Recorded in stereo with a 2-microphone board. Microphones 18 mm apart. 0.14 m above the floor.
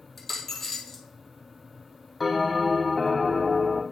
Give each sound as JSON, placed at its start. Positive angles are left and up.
{"t": 0.2, "sound": "a dropped coin", "side_deg": 10, "distance_m": 1.4}
{"t": 2.2, "sound": "a bell", "side_deg": -5, "distance_m": 1.7}